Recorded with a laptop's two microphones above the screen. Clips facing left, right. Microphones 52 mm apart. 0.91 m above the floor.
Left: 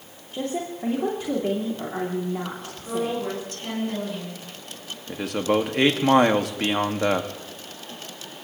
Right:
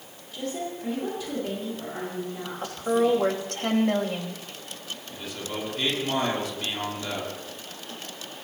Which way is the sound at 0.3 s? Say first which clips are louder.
Left 3 dB; 40° left (ahead or behind).